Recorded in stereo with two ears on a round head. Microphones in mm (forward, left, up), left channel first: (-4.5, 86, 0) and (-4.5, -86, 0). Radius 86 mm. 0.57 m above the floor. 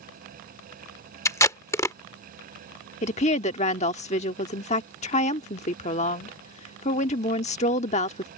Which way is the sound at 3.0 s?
35° left (ahead or behind).